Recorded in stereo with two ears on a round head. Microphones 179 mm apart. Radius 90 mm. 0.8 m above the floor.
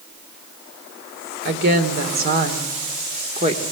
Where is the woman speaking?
55° right (ahead or behind), 2.5 m; by 3.6 s 30° right (ahead or behind), 1.9 m.